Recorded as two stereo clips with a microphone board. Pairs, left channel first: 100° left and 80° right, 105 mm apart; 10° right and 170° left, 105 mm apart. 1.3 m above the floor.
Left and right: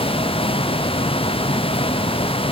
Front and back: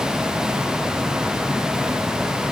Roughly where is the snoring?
No snoring in this recording.